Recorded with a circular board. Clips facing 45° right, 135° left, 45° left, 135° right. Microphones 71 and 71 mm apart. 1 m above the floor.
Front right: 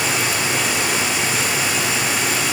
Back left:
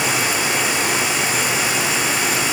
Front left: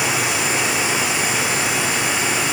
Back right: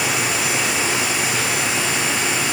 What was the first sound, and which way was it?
Only background noise.